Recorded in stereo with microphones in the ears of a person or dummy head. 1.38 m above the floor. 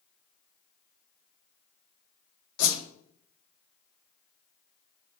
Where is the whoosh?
75° left (ahead or behind), 2 m.